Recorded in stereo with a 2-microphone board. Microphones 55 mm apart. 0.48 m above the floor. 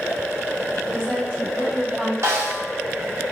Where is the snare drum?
55° right (ahead or behind), 0.6 m.